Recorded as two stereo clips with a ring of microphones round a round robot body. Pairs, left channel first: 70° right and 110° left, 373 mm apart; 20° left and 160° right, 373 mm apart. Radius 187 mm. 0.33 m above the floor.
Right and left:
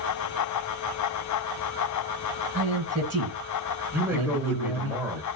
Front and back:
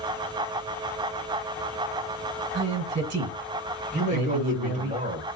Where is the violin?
No violin in this recording.